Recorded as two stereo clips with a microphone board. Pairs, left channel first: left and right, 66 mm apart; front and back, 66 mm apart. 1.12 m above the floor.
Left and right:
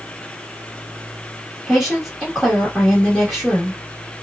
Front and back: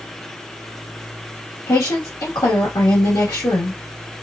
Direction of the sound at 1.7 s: Straight ahead.